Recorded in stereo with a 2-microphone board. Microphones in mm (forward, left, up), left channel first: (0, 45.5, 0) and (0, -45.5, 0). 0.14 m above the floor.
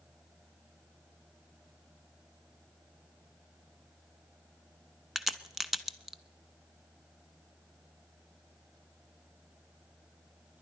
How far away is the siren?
I don't hear a siren.